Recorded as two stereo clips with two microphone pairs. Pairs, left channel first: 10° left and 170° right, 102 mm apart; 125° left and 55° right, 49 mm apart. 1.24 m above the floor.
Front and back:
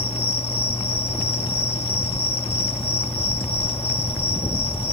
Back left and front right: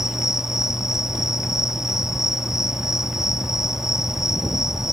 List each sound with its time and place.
0.0 s an insect: 25° left